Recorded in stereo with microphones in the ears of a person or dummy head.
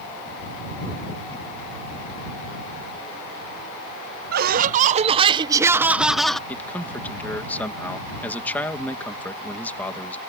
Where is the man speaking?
5° left (ahead or behind).